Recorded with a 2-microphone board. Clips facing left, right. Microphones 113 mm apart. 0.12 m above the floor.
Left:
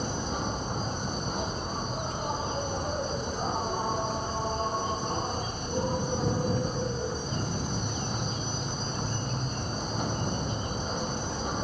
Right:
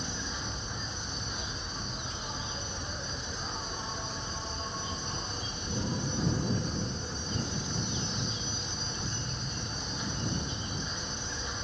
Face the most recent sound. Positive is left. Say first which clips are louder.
# left 8 dB
turn(degrees=45)  # may be behind; listen again after turning